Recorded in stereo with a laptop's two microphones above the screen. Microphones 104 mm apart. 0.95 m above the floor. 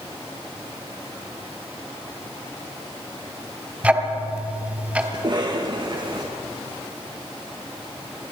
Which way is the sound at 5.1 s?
45° right (ahead or behind).